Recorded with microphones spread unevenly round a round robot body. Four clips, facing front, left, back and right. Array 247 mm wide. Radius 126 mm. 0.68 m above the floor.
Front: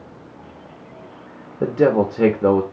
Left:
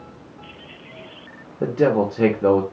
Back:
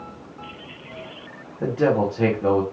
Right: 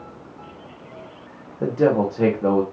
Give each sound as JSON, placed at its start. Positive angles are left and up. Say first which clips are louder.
{"t": 1.6, "sound": "a man speaking", "louder": "even, front 4 dB", "azimuth_deg": 15, "distance_m": 0.8}